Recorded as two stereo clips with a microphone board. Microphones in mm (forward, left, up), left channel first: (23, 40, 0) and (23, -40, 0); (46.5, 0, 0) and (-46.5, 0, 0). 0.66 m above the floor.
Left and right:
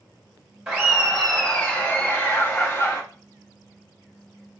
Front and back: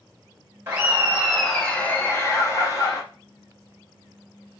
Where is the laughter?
150° right, 0.7 m; by 3.0 s 40° left, 1.2 m.